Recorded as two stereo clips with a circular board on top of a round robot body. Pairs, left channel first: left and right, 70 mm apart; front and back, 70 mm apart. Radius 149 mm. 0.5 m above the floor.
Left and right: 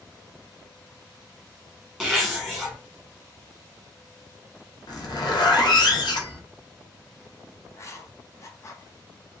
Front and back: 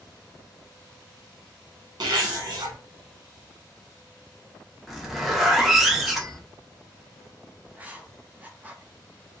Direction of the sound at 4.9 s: 95° left.